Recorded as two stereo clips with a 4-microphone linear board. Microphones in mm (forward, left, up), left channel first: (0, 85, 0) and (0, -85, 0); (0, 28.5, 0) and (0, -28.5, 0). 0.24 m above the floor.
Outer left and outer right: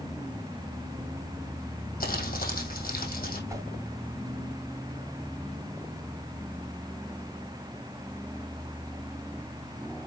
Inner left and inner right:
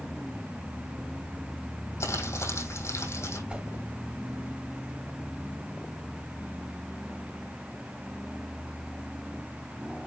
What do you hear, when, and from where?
2.0 s crumpling: 60° left (ahead or behind), 3 m
3.5 s a whoosh: 20° right (ahead or behind), 1.6 m